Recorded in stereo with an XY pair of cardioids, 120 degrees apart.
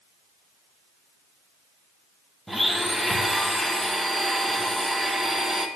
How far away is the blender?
About 1.3 m.